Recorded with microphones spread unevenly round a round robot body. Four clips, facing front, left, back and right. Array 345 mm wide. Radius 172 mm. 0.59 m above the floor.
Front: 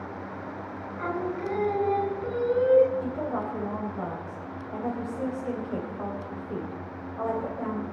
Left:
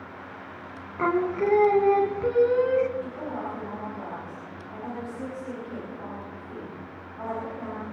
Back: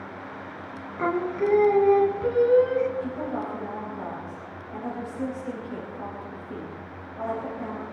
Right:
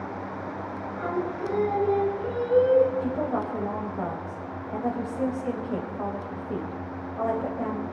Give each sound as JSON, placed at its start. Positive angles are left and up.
{"t": 1.0, "sound": "singing", "azimuth_deg": 125, "distance_m": 1.6}
{"t": 3.0, "sound": "a woman speaking", "azimuth_deg": -75, "distance_m": 3.0}